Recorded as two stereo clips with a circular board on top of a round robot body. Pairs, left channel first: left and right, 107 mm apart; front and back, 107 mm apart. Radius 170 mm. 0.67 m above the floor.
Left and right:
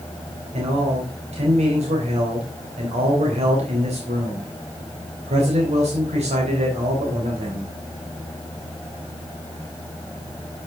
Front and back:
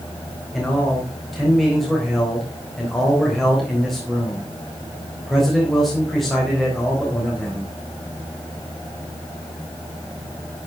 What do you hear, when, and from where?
0.5 s a man speaking: 90° right, 3.5 m